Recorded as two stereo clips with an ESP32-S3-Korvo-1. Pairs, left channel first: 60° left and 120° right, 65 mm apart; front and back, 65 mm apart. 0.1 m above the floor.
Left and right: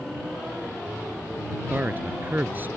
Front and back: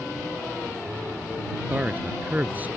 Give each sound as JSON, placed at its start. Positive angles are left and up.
{"t": 1.7, "sound": "a man speaking", "azimuth_deg": -140}